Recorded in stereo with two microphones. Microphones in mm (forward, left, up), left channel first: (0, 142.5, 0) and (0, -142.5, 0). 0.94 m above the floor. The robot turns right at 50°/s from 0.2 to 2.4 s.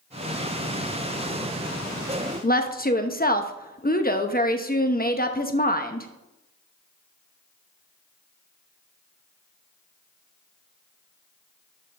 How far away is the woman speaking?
About 0.8 m.